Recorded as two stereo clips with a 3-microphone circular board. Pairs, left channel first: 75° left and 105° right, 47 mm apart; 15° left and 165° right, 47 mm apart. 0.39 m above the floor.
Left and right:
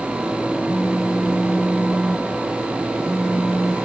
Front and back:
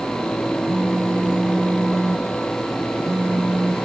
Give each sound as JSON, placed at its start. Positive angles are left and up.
{"t": 0.7, "sound": "a phone buzzing", "azimuth_deg": 165, "distance_m": 0.6}